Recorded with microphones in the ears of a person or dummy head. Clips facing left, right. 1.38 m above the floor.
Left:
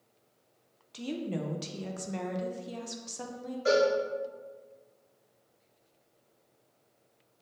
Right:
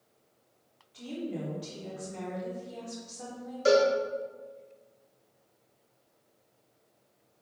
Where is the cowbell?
55° right (ahead or behind), 0.9 m.